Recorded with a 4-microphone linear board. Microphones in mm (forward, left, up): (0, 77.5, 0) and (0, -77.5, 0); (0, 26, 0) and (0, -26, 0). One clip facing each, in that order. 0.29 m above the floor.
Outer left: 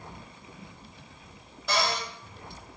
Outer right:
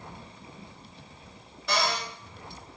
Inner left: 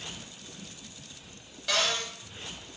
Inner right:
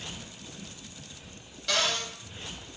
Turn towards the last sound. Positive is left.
turn(degrees=0)  # may be behind; listen again after turning